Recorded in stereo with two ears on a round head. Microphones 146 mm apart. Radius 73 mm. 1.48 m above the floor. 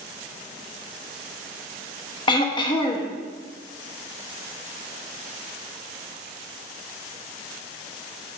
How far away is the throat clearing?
About 0.9 m.